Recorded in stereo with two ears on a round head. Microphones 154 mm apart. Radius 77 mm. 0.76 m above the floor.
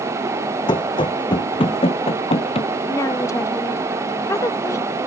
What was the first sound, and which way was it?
Running footsteps, 25° left (ahead or behind).